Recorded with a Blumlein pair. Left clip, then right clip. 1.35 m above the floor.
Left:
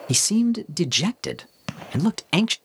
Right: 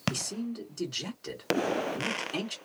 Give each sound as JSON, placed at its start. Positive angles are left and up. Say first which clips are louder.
{"t": 0.1, "sound": "a man speaking", "louder": "left 14 dB", "azimuth_deg": 45, "distance_m": 0.5}